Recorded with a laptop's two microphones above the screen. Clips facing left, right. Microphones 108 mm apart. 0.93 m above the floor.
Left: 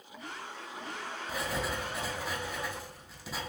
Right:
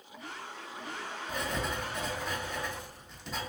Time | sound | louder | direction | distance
1.3 | writing | even | 5° left (ahead or behind) | 0.5 m